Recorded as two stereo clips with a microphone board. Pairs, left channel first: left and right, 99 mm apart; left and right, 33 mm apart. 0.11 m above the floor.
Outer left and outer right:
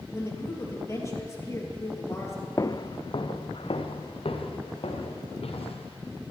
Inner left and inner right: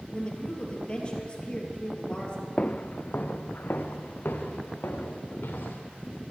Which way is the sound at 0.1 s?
30° left (ahead or behind).